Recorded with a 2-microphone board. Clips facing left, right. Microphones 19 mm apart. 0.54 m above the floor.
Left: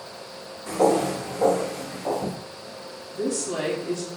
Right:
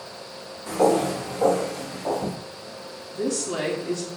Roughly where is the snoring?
No snoring in this recording.